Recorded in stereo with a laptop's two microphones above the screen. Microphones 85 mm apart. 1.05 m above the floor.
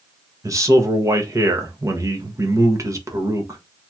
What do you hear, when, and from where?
0.4 s a man speaking: 35° right (ahead or behind), 0.8 m